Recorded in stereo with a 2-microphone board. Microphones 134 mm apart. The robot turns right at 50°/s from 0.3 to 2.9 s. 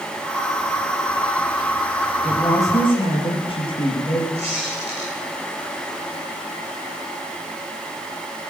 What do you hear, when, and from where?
2.2 s a woman speaking: 10° left, 4.5 m; by 4.2 s 40° left, 4.5 m
4.3 s a squeak: 45° right (ahead or behind), 8.5 m